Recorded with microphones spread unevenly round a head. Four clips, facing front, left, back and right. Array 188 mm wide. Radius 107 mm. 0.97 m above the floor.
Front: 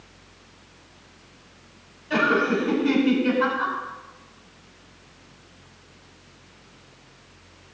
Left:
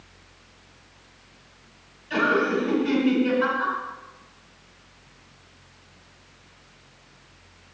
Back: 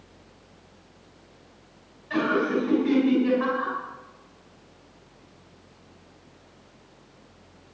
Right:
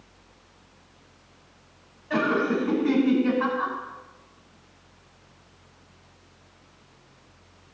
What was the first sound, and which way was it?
Laughter, 75° right.